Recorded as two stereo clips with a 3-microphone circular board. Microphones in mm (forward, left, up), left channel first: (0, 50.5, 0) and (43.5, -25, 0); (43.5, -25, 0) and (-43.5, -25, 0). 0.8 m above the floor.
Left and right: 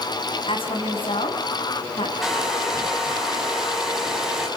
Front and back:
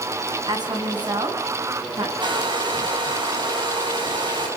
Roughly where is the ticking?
No ticking in this recording.